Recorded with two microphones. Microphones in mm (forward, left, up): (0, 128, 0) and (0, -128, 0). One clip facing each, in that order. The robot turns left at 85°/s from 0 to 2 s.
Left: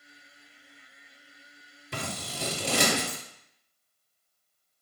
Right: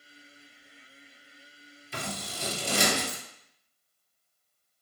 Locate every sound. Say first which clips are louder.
1.9 s scissors: left 1 dB; 85° left, 0.9 m; by 3.2 s 80° left, 0.9 m